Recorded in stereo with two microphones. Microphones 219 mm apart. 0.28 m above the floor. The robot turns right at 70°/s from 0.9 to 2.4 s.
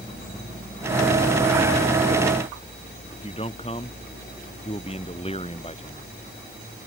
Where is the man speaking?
30° left (ahead or behind).